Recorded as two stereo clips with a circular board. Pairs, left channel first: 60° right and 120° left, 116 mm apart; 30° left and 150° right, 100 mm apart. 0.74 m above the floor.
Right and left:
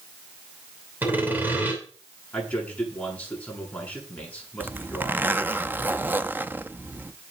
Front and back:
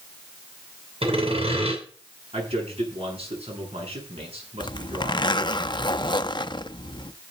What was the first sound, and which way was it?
Sawing, 165° right.